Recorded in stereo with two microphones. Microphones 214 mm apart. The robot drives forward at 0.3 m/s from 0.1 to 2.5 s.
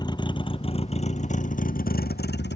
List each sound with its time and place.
0.0 s a vehicle: 20° left (ahead or behind); by 2.6 s 55° left (ahead or behind)